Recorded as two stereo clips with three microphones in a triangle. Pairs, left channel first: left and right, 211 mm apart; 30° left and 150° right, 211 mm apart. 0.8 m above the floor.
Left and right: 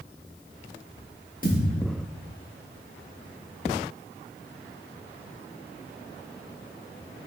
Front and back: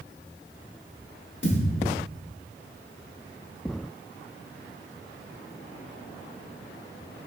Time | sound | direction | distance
1.4 | a thud | 45° left | 0.9 m